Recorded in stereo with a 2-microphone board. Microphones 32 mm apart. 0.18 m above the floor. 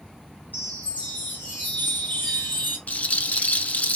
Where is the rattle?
55° left (ahead or behind), 0.5 m.